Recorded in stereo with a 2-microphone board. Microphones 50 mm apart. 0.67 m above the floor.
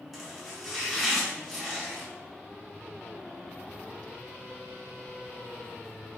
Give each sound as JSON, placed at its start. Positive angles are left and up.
{"t": 0.1, "sound": "chopping", "side_deg": -5, "distance_m": 1.8}